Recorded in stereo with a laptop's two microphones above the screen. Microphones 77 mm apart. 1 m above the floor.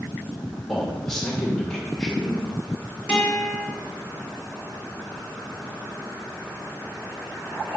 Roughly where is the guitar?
Centre.